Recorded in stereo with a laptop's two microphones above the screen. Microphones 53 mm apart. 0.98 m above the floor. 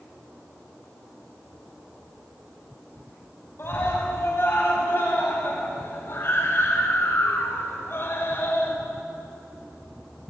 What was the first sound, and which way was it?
A scream, 45° left (ahead or behind).